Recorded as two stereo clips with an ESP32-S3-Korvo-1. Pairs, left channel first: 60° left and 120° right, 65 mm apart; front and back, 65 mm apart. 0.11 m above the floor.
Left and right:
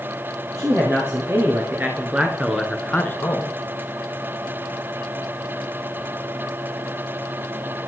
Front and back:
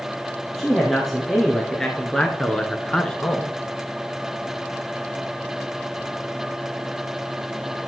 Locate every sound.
0.6 s a man speaking: 90° right, 2.5 m; by 3.5 s 65° left, 1.4 m